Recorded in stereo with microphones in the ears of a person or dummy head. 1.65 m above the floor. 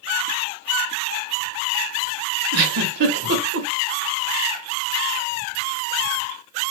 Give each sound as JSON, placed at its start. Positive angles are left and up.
{"t": 2.5, "sound": "a giggle", "side_deg": -70, "distance_m": 1.2}